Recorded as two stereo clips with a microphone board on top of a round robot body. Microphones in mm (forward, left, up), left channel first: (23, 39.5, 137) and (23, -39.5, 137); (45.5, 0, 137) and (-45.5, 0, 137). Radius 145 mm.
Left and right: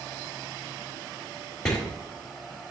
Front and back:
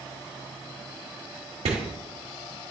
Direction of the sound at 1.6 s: 170° left.